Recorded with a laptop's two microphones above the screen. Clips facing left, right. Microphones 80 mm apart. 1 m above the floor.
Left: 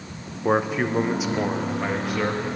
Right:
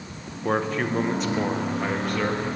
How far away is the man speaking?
About 0.7 m.